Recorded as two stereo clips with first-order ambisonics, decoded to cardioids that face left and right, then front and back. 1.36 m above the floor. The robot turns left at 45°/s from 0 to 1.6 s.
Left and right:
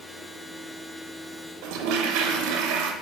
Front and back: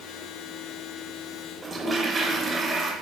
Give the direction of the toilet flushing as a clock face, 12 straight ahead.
3 o'clock.